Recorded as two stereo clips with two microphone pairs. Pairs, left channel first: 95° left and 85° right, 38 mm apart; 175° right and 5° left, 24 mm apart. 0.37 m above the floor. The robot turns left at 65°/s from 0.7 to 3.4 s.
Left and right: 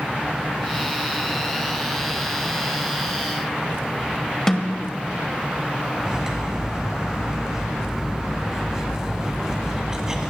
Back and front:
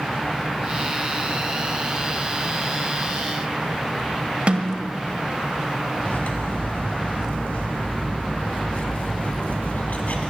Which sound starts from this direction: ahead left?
A snare drum, at 4.5 s.